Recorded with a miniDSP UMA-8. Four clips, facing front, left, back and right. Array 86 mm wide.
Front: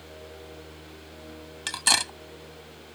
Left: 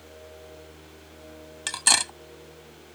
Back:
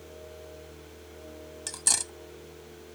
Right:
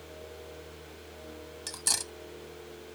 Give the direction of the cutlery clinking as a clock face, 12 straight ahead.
10 o'clock.